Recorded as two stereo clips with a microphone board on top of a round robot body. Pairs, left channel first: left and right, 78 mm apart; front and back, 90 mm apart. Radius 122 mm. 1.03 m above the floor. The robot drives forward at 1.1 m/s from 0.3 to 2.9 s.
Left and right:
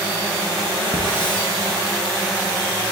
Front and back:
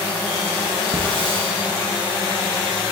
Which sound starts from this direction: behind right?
A hiss, at 0.9 s.